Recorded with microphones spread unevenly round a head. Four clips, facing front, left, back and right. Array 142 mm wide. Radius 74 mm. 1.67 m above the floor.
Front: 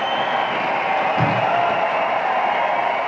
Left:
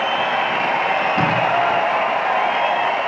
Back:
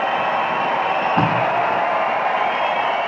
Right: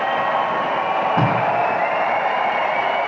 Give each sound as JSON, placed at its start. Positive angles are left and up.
{"t": 1.2, "sound": "tape being pulled", "azimuth_deg": -170, "distance_m": 6.5}